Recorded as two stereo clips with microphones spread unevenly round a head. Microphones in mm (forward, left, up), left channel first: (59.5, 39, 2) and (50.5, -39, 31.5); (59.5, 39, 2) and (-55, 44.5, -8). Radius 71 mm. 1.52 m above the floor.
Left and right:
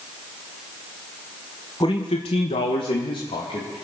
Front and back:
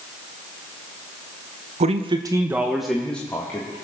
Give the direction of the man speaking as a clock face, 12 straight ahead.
7 o'clock.